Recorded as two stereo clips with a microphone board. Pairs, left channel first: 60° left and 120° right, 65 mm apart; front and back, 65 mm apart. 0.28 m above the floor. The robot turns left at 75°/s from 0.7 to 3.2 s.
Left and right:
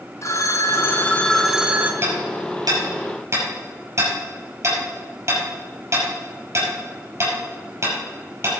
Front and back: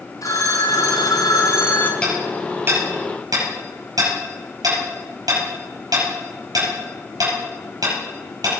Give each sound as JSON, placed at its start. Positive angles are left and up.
{"t": 0.2, "sound": "a phone ringing", "azimuth_deg": 25, "distance_m": 1.4}
{"t": 2.0, "sound": "hammering", "azimuth_deg": -75, "distance_m": 6.0}